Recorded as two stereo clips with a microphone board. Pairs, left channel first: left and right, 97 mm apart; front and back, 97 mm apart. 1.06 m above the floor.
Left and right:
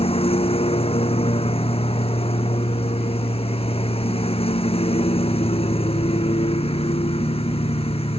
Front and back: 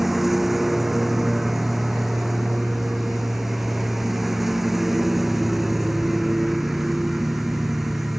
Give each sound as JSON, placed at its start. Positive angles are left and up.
{"t": 0.0, "sound": "a lawn mower", "azimuth_deg": 90}